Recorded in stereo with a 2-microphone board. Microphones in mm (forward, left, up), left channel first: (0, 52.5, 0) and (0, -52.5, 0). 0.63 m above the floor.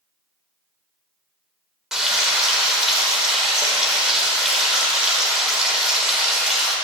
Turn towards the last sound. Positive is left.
turn(degrees=-5)  # may be behind; listen again after turning